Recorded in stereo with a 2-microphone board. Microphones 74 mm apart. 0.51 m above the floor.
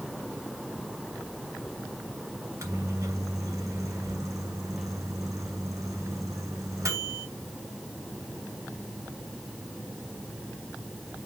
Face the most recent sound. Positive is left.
turn(degrees=-45)  # may be behind; listen again after turning